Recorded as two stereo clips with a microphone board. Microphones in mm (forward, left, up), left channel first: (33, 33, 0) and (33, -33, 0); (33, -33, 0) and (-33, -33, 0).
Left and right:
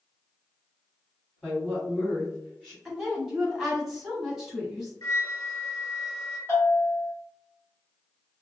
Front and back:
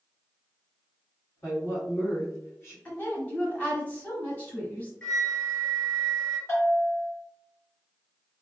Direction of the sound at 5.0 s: 65° left.